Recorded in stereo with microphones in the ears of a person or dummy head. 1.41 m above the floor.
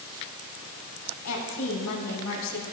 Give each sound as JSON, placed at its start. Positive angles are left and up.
{"t": 1.2, "sound": "a woman speaking", "side_deg": 85, "distance_m": 4.5}